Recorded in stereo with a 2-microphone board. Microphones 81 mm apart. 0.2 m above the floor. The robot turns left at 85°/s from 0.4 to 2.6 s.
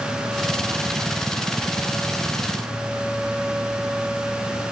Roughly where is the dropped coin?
No dropped coin in this recording.